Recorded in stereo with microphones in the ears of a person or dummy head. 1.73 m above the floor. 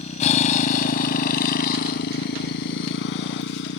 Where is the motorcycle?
35° left (ahead or behind); by 3.8 s 65° left (ahead or behind).